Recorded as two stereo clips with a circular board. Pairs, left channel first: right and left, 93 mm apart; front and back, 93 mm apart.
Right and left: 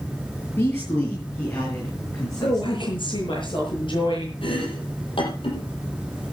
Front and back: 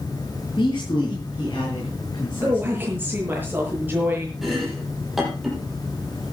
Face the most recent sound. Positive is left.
turn(degrees=-90)